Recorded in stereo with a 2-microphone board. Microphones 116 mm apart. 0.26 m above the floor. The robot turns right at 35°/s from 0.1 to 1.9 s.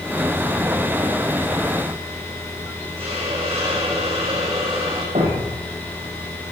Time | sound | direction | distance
3.0 | a hiss | 55° right (ahead or behind) | 9.5 m
5.2 | a thud | 85° right | 6 m